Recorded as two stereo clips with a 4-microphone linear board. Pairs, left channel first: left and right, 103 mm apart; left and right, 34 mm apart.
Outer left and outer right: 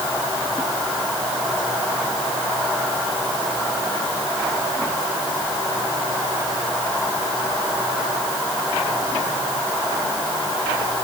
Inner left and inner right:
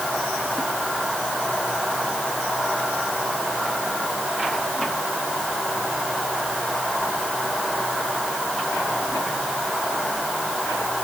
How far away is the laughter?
No laughter in this recording.